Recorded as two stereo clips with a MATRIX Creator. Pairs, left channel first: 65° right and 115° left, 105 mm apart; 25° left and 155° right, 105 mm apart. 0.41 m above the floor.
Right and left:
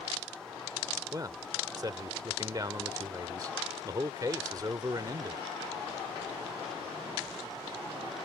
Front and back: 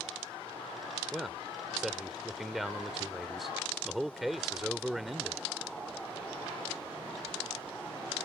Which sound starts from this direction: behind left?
A man speaking, at 1.1 s.